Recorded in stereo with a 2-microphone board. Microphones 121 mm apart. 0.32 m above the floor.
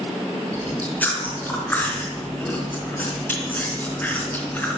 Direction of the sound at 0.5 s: 15° left (ahead or behind).